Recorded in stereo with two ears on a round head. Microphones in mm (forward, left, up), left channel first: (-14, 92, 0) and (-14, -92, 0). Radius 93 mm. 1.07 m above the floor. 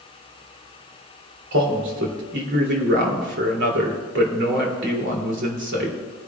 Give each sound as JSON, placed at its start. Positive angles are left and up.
{"t": 1.5, "sound": "a man speaking", "side_deg": -60, "distance_m": 3.0}